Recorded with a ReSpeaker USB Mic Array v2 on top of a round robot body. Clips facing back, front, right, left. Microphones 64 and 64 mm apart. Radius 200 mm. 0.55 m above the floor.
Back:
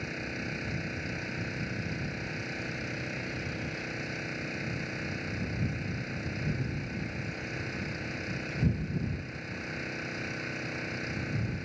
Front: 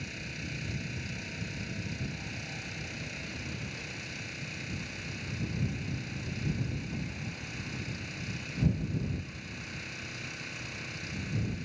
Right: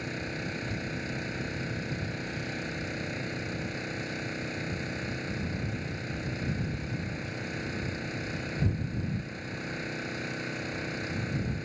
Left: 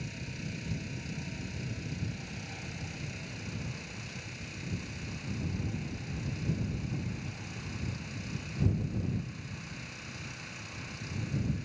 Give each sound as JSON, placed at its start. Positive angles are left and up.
{"t": 0.0, "sound": "an engine running", "azimuth_deg": -125}